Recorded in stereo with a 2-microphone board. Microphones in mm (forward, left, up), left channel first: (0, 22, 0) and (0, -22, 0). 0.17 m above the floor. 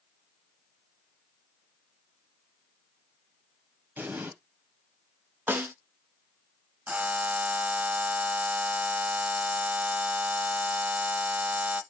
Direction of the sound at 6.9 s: 35° right (ahead or behind).